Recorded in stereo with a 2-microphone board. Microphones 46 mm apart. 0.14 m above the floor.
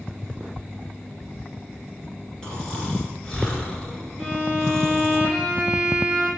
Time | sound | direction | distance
2.4 | snoring | 15° left (ahead or behind) | 1.8 m
4.2 | a violin | 5° right (ahead or behind) | 3.5 m